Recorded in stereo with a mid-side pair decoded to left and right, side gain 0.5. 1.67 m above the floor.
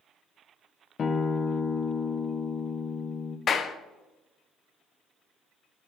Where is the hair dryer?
No hair dryer in this recording.